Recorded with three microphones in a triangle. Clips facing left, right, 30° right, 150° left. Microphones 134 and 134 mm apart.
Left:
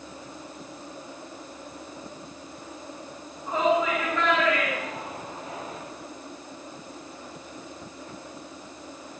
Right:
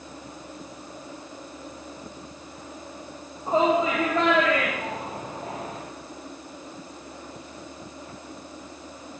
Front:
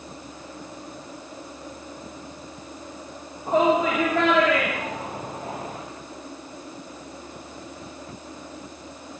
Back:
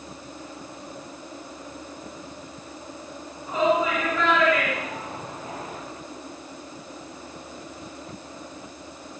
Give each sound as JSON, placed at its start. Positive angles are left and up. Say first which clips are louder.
{"t": 3.5, "sound": "a shout", "louder": "right 2 dB, front 2 dB", "azimuth_deg": -35, "distance_m": 8.0}